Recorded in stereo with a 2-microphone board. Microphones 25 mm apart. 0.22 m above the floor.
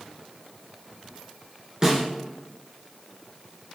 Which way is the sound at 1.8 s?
25° right (ahead or behind).